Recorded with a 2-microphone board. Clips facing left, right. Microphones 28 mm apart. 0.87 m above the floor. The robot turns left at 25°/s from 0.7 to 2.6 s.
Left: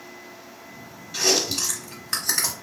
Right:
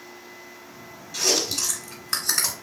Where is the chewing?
30° left (ahead or behind), 1.1 m; by 2.5 s centre (ahead or behind), 1.1 m.